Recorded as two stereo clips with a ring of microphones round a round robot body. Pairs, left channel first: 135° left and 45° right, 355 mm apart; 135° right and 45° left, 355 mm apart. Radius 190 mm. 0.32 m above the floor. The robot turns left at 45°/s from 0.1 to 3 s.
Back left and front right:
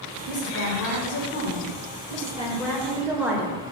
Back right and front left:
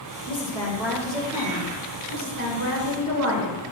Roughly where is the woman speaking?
Behind.